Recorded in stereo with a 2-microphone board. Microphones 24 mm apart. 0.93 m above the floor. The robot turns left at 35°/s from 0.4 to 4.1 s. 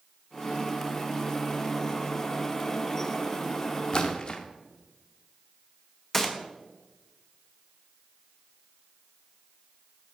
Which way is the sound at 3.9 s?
40° left (ahead or behind).